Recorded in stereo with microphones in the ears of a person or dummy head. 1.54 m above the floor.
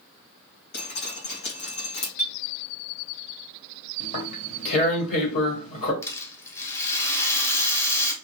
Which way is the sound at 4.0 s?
40° left (ahead or behind).